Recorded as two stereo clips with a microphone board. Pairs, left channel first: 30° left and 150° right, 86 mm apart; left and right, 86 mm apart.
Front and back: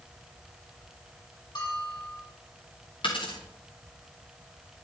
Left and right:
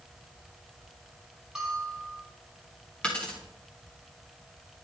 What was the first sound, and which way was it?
A bell, 5° right.